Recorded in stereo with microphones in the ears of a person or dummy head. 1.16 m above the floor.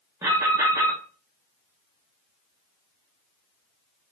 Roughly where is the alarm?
Centre.